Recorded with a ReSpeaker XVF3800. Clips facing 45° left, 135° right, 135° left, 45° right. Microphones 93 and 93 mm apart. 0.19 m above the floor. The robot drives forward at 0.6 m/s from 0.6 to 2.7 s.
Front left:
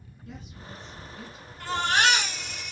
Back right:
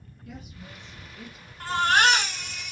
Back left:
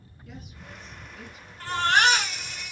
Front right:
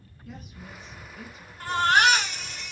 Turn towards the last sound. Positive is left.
turn(degrees=-145)